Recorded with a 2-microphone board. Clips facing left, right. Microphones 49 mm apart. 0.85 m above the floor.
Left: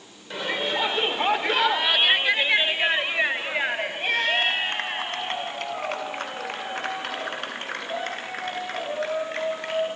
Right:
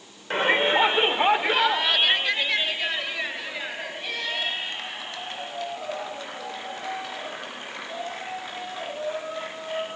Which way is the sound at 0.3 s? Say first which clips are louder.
Right 6 dB; 45° right (ahead or behind).